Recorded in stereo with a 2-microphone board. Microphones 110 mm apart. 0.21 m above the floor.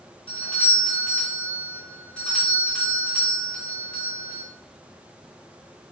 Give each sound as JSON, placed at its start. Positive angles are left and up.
{"t": 0.3, "sound": "a doorbell", "side_deg": 10, "distance_m": 1.7}